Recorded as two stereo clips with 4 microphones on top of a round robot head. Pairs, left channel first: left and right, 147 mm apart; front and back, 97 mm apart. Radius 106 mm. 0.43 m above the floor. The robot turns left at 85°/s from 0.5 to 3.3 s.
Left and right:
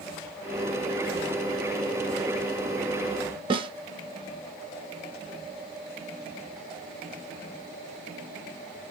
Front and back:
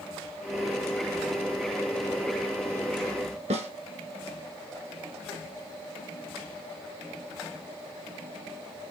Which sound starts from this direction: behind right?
A snare drum, at 3.5 s.